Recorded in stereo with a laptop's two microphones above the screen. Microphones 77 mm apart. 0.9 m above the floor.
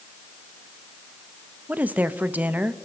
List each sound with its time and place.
1.7 s a woman speaking: 20° right (ahead or behind), 0.7 m